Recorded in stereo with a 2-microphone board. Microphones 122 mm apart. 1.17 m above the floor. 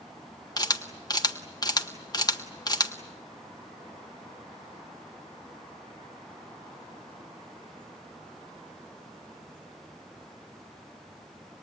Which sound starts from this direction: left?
A camera shutter, at 0.6 s.